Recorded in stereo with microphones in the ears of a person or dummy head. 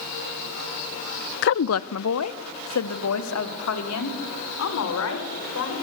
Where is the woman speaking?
50° left (ahead or behind), 0.5 m; by 5.7 s 75° left (ahead or behind), 5 m.